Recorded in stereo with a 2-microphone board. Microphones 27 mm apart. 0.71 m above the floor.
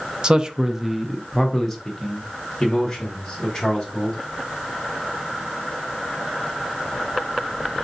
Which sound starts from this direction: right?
A man speaking, at 0.2 s.